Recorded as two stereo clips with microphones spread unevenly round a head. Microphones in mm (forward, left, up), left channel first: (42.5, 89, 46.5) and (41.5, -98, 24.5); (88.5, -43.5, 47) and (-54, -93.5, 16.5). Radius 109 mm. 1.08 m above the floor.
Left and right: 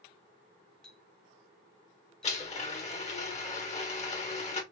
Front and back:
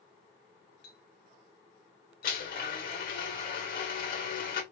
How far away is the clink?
About 1.0 m.